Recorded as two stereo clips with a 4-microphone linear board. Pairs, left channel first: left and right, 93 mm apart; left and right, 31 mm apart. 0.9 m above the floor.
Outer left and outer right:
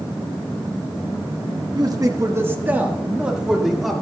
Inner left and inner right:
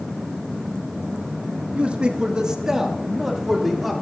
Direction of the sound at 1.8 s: 45° right (ahead or behind).